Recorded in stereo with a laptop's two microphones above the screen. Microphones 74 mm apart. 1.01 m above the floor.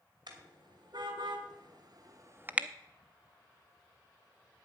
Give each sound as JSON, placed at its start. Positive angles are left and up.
{"t": 0.3, "sound": "a car horn", "side_deg": -70, "distance_m": 2.5}